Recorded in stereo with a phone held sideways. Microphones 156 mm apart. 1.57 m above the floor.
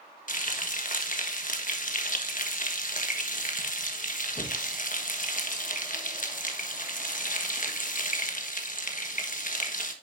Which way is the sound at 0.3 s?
60° left (ahead or behind).